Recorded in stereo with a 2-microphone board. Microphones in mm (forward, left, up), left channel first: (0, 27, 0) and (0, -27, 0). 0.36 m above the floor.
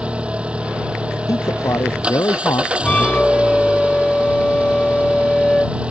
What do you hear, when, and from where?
0.0 s an engine running: 20° right (ahead or behind)
1.3 s a man speaking: 80° left
2.8 s a flute: 20° left (ahead or behind)